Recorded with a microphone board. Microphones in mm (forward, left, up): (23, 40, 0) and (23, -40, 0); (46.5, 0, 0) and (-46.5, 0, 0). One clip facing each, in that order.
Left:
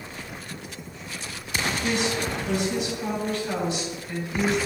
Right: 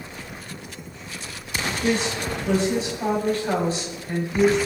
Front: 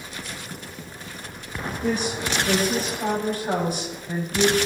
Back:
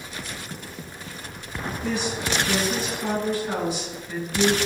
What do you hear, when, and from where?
1.8 s a woman speaking: 40° right, 6 m